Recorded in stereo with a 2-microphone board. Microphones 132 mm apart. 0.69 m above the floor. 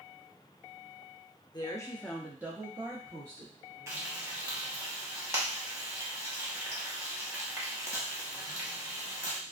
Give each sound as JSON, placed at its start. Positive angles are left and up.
{"t": 1.5, "sound": "a woman speaking", "side_deg": 30, "distance_m": 0.6}
{"t": 3.9, "sound": "frying", "side_deg": -20, "distance_m": 1.0}